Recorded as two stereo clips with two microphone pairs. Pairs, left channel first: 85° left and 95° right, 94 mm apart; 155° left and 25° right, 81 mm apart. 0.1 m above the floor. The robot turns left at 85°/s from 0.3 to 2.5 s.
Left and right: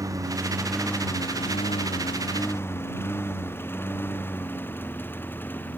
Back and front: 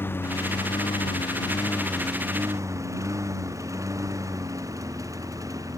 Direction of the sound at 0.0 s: 145° right.